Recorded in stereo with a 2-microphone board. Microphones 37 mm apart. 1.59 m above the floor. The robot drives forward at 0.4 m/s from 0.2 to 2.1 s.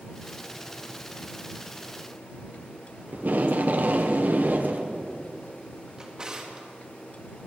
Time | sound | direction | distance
3.1 | tape being pulled | 55° right (ahead or behind) | 1.0 m
6.0 | a drawer | 20° right (ahead or behind) | 1.5 m